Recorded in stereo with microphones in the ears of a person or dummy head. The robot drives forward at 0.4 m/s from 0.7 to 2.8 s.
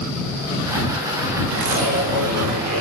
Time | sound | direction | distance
1.5 | a zipper | 55° right (ahead or behind) | 1.3 m